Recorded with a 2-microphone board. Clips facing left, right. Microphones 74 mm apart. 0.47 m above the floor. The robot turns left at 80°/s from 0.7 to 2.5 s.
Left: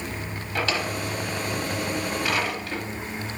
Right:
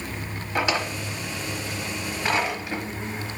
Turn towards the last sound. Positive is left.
turn(degrees=-15)  # may be behind; listen again after turning